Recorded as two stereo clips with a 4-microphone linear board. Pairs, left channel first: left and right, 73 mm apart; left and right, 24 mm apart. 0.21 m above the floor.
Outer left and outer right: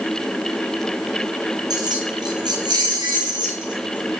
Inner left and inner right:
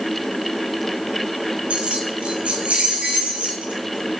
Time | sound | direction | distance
1.7 | keys jangling | 60° right (ahead or behind) | 1.6 m